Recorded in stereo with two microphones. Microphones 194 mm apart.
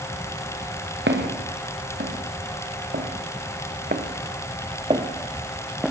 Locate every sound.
1.1 s footsteps: 70° right (ahead or behind), 5.5 m; by 5.9 s centre (ahead or behind), 2.5 m